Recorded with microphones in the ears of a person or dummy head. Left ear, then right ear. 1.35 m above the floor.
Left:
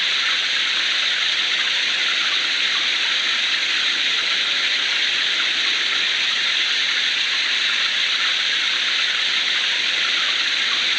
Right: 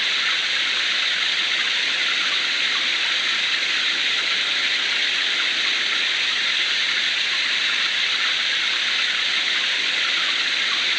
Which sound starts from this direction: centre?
Running water, at 0.0 s.